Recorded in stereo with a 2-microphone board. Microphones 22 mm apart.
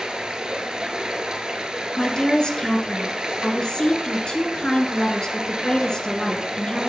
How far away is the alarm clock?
I don't hear an alarm clock.